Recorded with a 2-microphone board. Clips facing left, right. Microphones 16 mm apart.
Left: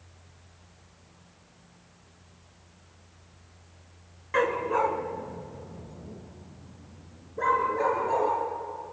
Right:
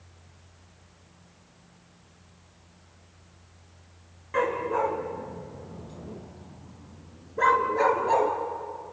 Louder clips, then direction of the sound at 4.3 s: Left 1 dB; 20° left (ahead or behind).